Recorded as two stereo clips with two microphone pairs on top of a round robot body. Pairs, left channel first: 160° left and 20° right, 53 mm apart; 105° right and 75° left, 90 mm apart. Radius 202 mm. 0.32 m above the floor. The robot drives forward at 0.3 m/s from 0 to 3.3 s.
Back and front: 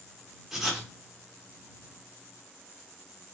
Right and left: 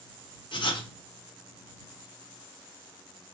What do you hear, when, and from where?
0.5 s writing: 100° right, 1.3 m; by 0.9 s 110° right, 1.3 m